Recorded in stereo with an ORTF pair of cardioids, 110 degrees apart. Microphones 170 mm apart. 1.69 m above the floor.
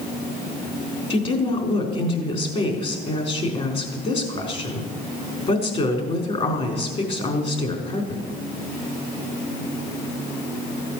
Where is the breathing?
No breathing in this recording.